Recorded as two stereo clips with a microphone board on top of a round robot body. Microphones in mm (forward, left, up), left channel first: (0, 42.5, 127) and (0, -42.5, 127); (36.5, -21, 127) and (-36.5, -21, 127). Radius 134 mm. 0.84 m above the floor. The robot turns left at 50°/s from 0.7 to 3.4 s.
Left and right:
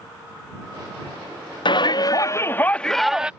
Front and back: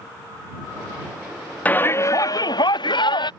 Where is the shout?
70° left; by 3.3 s 10° right.